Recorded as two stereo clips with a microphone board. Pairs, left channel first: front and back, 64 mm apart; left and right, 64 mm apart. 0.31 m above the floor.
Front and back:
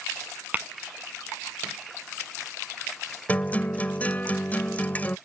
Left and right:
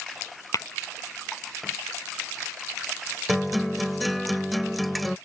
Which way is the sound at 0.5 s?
115° left.